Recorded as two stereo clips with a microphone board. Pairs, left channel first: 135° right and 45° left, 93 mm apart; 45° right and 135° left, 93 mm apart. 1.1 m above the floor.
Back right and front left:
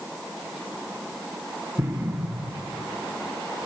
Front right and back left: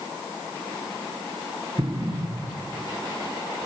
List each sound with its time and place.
1.8 s an explosion: 110° left, 1.2 m